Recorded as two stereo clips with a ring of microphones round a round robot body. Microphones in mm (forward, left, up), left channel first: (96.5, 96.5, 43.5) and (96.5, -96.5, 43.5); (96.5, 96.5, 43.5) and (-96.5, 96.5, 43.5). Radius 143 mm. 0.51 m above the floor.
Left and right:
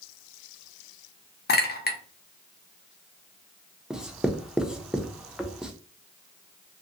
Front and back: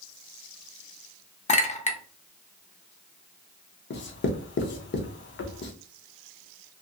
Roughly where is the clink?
Ahead left.